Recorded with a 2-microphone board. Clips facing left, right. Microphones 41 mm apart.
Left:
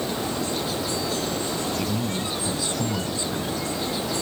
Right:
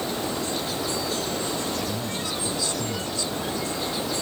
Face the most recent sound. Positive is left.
turn(degrees=30)  # may be behind; listen again after turning